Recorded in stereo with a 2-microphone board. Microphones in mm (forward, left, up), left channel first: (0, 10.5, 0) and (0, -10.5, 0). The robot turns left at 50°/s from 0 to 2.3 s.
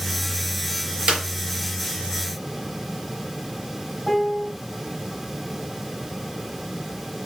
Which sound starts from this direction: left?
A piano, at 4.1 s.